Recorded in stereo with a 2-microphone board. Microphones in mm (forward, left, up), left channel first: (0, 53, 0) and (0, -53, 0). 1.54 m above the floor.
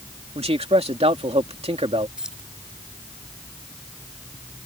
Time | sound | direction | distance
0.3 | a man speaking | 80° right | ?
2.2 | keys jangling | 5° right (ahead or behind) | ?